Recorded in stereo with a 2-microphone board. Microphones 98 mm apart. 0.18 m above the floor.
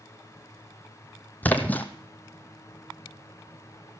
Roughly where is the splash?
Centre.